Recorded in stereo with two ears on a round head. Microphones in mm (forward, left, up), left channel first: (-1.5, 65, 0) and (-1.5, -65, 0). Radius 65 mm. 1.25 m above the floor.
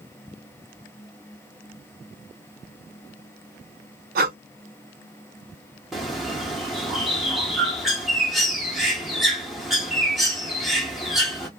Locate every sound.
4.2 s breathing: 65° right (ahead or behind), 0.6 m
5.9 s a bird: centre (ahead or behind), 1.2 m